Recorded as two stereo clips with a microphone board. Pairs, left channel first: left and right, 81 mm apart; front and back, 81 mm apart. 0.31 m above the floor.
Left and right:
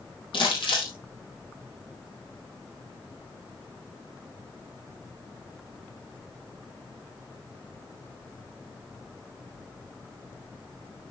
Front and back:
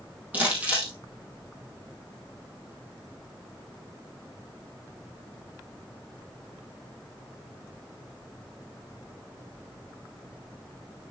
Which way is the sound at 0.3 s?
110° left.